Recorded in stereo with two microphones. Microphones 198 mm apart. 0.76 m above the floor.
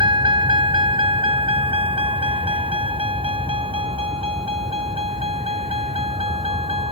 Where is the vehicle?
25° right (ahead or behind); by 6.9 s 30° right (ahead or behind).